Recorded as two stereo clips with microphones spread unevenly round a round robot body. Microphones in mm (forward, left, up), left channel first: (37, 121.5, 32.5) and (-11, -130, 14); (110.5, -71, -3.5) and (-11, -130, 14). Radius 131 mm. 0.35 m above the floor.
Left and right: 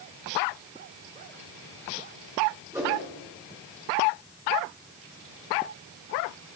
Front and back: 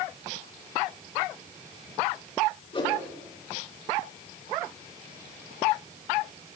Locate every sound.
2.7 s a whoosh: 25° right, 4 m